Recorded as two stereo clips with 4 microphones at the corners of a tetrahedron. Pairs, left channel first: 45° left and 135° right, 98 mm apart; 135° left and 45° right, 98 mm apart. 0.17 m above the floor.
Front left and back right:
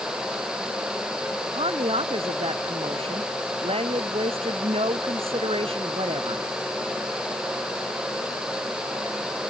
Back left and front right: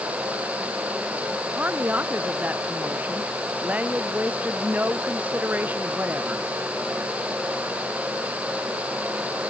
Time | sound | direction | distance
1.4 | a woman speaking | 120° right | ?